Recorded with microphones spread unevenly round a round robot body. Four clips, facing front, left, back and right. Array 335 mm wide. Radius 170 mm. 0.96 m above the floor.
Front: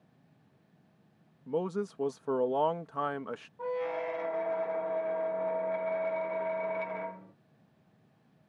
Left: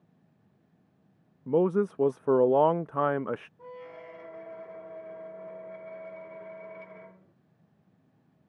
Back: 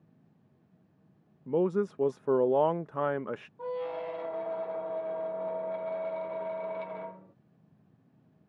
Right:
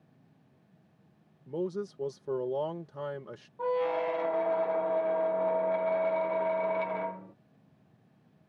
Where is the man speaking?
85° left.